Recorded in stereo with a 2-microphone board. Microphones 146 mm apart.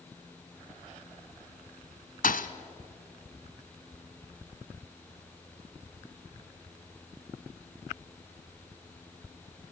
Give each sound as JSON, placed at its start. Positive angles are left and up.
{"t": 2.2, "sound": "a thud", "side_deg": 75, "distance_m": 0.9}